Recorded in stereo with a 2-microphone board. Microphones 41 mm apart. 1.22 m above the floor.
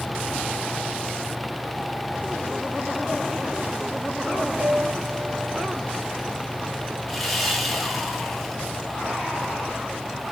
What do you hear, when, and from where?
4.6 s a piano: 15° right (ahead or behind), 1.0 m
7.1 s sawing: centre (ahead or behind), 1.5 m